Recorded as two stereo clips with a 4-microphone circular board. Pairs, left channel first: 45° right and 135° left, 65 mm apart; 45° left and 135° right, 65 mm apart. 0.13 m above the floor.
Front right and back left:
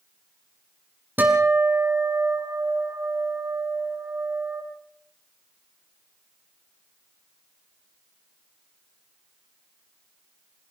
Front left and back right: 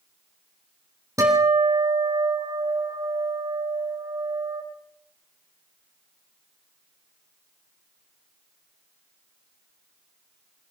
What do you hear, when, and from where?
1.2 s a guitar: 170° right, 5 m